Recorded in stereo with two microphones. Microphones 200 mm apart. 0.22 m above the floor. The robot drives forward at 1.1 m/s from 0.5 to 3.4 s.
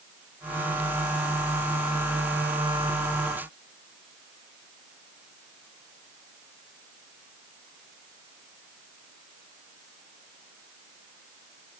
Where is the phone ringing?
I don't hear a phone ringing.